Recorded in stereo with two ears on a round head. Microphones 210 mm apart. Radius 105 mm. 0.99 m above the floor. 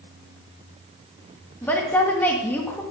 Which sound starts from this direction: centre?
A woman speaking, at 1.6 s.